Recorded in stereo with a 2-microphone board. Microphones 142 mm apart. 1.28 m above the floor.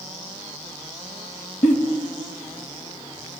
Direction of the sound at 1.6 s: 70° left (ahead or behind).